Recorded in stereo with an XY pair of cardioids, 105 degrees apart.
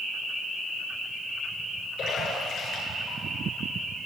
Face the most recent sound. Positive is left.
turn(degrees=60)